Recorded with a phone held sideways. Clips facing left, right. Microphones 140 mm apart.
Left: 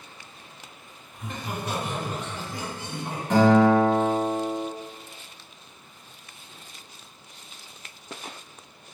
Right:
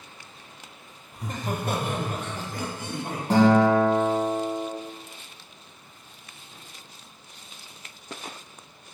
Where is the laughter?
35° right (ahead or behind), 0.5 m; by 3.2 s 45° right (ahead or behind), 1.2 m.